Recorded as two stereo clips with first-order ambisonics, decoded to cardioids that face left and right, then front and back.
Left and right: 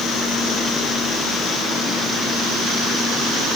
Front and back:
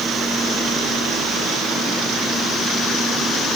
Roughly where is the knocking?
I don't hear knocking.